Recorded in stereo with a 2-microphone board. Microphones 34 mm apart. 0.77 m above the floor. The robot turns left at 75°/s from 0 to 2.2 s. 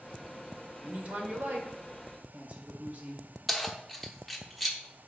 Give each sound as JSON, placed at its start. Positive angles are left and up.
{"t": 0.8, "sound": "a woman speaking", "azimuth_deg": -25, "distance_m": 2.0}
{"t": 3.5, "sound": "keys jangling", "side_deg": 0, "distance_m": 1.0}